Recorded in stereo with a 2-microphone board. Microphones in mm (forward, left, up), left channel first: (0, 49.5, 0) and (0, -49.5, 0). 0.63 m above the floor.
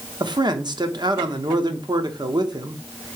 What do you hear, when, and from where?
0.2 s a man speaking: 45° right (ahead or behind), 1.0 m